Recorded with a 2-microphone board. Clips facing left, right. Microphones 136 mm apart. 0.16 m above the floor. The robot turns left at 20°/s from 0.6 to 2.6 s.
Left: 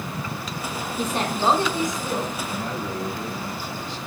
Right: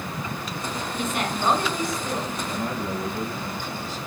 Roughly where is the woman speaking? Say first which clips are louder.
Left 3 dB; left.